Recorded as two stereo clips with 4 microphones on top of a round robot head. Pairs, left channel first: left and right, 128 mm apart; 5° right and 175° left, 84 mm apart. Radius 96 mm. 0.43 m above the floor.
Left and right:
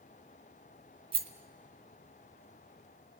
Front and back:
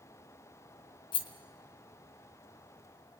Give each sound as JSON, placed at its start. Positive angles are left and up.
{"t": 1.1, "sound": "a rattle", "azimuth_deg": -35, "distance_m": 1.3}